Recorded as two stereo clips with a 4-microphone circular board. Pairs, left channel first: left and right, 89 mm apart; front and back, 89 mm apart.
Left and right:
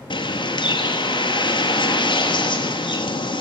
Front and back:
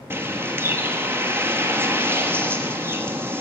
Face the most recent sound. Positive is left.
turn(degrees=115)